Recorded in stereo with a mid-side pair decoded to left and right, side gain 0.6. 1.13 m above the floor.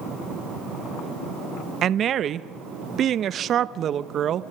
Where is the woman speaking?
45° right, 0.7 m.